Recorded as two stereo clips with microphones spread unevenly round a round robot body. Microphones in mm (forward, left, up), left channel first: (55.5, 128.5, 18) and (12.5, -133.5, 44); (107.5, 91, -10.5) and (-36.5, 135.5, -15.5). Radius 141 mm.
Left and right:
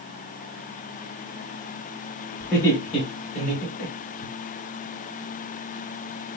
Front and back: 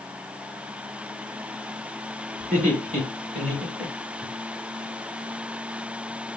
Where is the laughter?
160° left, 1.4 m; by 4.3 s 110° left, 1.7 m.